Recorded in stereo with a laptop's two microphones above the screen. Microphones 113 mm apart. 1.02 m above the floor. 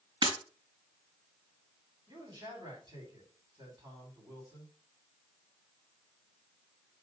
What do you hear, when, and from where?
0.2 s breaking glass: 50° right (ahead or behind), 3.5 m
2.1 s a man speaking: 40° right (ahead or behind), 3.5 m